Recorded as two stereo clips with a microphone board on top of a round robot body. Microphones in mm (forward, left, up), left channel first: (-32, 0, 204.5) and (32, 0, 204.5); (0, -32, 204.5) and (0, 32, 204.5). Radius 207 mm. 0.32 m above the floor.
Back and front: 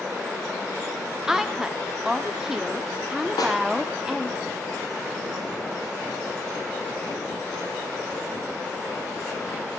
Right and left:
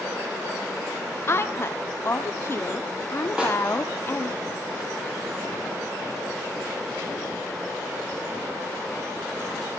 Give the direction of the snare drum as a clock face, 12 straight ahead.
6 o'clock.